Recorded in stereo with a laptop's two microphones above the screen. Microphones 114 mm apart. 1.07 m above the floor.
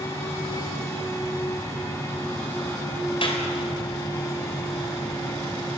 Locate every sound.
0.0 s a fan: 25° left (ahead or behind), 4.5 m
3.2 s a clap: 50° left (ahead or behind), 3.5 m